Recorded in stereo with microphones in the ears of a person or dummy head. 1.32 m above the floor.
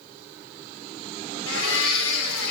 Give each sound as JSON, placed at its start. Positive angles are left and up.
{"t": 1.5, "sound": "a blender", "side_deg": 80, "distance_m": 0.9}